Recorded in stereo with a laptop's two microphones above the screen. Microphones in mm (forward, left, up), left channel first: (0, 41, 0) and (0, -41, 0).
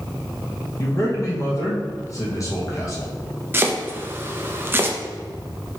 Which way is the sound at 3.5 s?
25° right (ahead or behind).